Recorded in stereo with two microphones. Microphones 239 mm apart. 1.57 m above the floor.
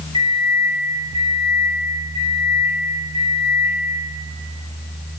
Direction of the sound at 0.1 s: 20° right (ahead or behind).